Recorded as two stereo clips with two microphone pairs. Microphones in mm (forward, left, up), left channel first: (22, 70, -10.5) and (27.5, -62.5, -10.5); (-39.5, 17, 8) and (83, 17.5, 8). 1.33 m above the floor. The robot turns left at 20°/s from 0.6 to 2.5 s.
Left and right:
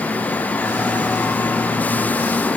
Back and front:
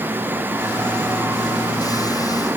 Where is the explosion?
No explosion in this recording.